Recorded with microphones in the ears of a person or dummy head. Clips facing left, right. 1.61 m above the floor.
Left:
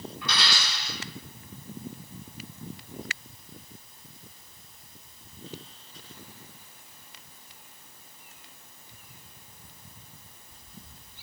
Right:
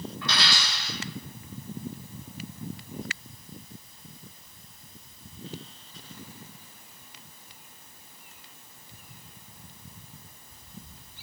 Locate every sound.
0.2 s a dropped coin: 20° left (ahead or behind), 1.9 m